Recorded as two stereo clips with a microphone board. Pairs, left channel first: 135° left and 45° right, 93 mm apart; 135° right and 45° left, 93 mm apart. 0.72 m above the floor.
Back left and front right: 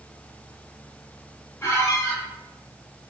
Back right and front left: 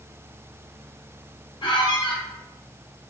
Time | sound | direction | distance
1.6 | a squeak | 160° right | 1.0 m